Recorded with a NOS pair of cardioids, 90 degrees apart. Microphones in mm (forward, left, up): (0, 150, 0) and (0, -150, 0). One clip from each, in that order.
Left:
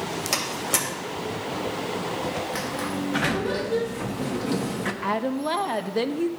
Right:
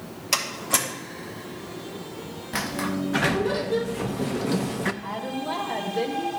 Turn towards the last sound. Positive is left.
turn(degrees=55)